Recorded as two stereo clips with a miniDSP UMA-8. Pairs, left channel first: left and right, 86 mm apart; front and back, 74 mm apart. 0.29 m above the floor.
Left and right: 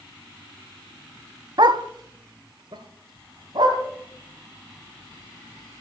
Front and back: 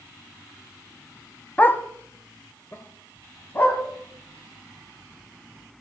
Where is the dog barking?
65° right, 0.5 m; by 3.8 s 55° right, 2.5 m.